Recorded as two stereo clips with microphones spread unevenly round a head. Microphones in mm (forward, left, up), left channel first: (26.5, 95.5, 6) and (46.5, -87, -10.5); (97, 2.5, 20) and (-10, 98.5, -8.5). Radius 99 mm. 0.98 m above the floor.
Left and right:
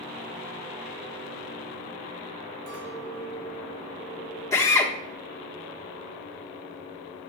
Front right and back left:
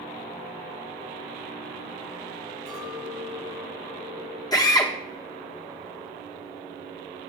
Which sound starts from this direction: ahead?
A drill, at 4.5 s.